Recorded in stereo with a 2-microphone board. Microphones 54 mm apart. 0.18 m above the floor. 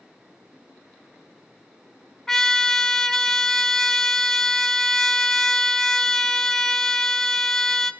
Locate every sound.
2.3 s a trumpet: 10° left (ahead or behind), 0.5 m